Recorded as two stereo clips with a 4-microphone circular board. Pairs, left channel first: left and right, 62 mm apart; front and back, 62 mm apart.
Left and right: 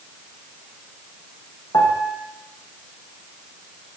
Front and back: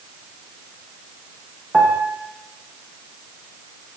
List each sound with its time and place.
1.7 s a piano: 100° left, 9.5 m